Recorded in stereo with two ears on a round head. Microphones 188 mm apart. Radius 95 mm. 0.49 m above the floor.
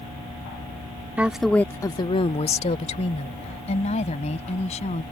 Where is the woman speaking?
10° right (ahead or behind); by 5.0 s 30° left (ahead or behind).